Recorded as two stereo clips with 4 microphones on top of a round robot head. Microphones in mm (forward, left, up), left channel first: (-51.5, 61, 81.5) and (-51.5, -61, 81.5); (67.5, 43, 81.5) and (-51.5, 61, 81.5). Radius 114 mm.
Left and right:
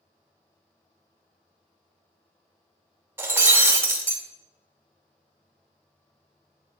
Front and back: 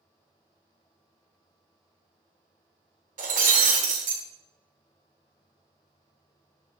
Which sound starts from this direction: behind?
Breaking glass, at 3.2 s.